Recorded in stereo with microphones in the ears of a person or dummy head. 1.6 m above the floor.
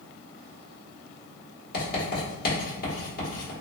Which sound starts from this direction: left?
Writing, at 1.7 s.